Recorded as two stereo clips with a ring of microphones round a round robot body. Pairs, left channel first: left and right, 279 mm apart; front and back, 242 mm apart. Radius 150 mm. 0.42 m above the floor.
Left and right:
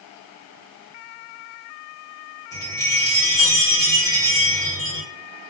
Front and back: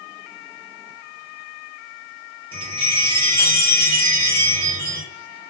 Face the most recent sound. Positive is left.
turn(degrees=150)